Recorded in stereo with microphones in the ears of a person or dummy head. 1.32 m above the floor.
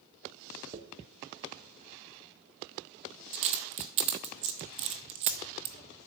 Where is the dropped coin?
30° right (ahead or behind), 0.7 m.